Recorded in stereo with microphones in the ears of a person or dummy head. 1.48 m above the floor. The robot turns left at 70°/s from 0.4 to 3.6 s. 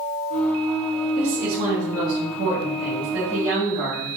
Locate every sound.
1.1 s a woman speaking: 5° right, 2.5 m; by 4.1 s 175° right, 2.5 m